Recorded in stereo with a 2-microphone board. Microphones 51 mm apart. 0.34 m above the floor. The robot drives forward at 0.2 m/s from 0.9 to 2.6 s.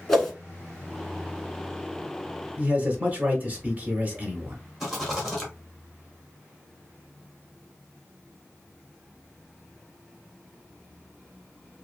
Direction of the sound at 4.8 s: Centre (ahead or behind).